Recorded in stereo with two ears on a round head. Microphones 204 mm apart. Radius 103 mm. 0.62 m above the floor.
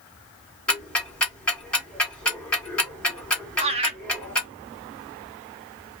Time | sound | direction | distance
0.7 | ticking | 5° left (ahead or behind) | 1.7 m
3.6 | laughter | 25° right (ahead or behind) | 0.8 m